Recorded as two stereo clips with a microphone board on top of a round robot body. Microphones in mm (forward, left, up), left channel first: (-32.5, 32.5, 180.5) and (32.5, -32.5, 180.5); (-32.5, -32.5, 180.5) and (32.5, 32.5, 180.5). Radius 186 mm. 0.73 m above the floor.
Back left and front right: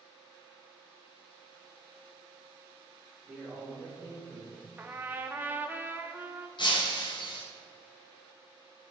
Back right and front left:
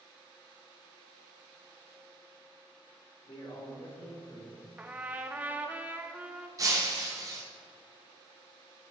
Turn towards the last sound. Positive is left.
turn(degrees=100)